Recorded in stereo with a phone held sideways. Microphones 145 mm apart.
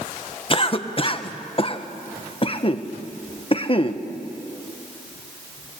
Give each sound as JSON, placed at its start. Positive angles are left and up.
{"t": 0.5, "sound": "a cough", "side_deg": 35, "distance_m": 1.1}